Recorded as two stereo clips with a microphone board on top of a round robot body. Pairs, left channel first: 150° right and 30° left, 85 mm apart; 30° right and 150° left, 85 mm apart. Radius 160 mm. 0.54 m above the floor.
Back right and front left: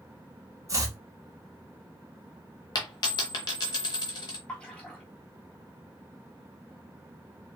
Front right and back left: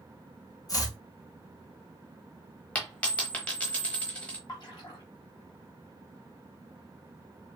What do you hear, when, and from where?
0.7 s chopping: 5° right, 1.2 m
2.8 s a dropped coin: 105° right, 0.8 m
4.5 s a splash: 70° right, 0.6 m